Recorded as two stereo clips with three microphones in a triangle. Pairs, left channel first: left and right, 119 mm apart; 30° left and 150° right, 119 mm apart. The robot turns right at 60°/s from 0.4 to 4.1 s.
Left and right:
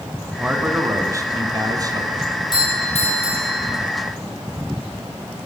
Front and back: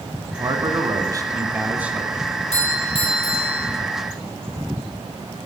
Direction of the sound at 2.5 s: 40° left.